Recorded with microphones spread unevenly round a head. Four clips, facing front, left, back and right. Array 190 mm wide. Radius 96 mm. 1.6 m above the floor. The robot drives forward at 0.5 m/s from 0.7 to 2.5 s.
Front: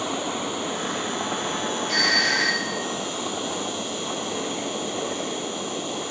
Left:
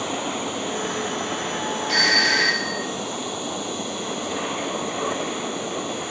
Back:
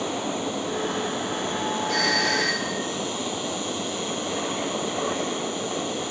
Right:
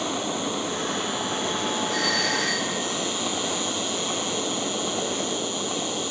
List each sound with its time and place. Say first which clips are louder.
0.0 s an insect: left 1 dB, even; 55° right, 2 m; by 6.1 s 80° right, 1.8 m
1.9 s a doorbell: left 3 dB, even; 90° left, 1.2 m; by 2.9 s 105° left, 1.2 m